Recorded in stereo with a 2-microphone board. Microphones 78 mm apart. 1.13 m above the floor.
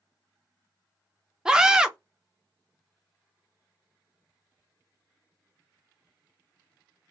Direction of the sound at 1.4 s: 10° right (ahead or behind).